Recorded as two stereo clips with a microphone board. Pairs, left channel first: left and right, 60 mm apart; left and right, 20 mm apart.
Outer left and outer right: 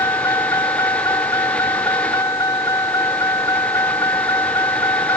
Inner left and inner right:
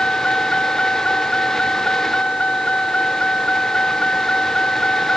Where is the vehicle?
70° left (ahead or behind); by 5.2 s 80° left.